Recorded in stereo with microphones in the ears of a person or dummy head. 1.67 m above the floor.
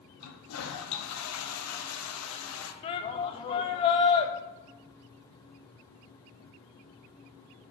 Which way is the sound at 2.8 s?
25° left (ahead or behind).